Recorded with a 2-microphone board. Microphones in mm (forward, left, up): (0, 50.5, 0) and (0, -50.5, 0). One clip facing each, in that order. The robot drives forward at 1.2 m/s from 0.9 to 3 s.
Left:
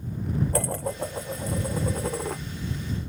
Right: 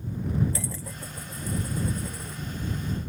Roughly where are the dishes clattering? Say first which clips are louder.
Left 9 dB; left.